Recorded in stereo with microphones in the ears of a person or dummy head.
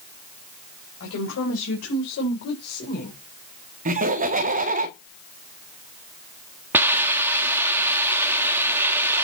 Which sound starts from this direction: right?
Laughter, at 3.9 s.